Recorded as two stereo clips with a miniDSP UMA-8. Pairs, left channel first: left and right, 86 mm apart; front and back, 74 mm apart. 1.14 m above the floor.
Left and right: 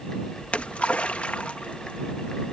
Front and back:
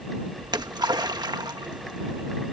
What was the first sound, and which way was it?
A splash, 165° left.